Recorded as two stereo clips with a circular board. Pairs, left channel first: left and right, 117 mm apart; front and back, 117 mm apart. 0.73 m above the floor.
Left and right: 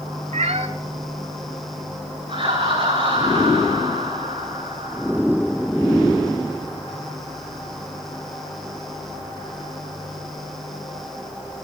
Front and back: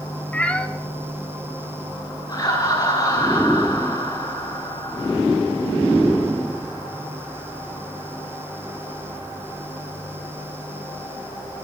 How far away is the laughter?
About 9.5 m.